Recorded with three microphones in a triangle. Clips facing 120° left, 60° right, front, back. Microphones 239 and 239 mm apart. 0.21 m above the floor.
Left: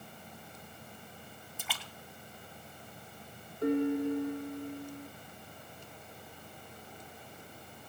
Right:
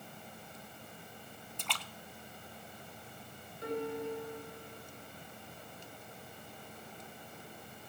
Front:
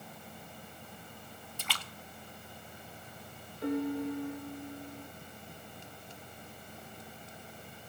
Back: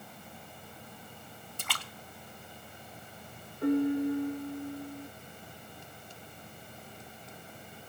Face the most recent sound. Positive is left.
turn(degrees=150)